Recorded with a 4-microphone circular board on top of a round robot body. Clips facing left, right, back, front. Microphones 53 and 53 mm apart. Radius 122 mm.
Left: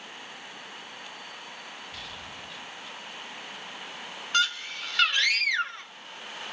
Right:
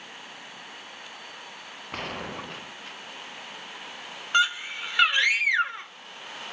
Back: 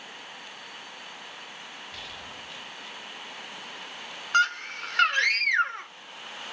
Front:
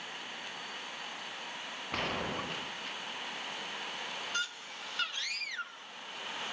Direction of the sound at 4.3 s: 160° right.